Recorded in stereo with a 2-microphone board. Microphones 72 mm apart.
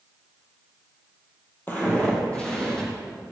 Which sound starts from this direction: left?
Footsteps, at 1.7 s.